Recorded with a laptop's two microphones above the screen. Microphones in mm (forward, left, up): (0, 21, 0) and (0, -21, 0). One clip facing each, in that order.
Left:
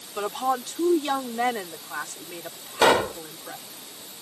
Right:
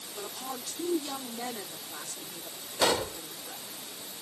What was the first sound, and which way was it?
A woman speaking, 80° left.